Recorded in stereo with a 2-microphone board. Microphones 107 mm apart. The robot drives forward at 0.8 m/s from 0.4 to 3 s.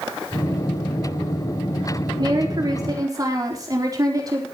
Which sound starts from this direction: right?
A woman speaking, at 2.2 s.